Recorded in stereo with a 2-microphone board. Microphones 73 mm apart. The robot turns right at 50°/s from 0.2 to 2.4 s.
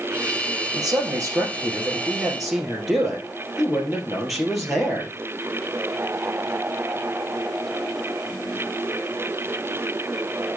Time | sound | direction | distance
0.7 | a man speaking | 85° right | 2.5 m